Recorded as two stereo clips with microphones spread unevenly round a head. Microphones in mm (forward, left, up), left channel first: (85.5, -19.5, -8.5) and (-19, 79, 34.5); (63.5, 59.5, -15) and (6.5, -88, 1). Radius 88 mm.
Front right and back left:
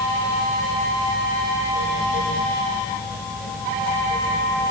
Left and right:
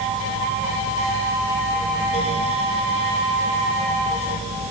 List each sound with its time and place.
Only background noise.